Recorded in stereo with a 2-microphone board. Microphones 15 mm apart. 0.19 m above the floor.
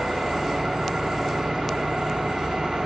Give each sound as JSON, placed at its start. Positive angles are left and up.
{"t": 0.0, "sound": "an engine running", "side_deg": -60, "distance_m": 7.5}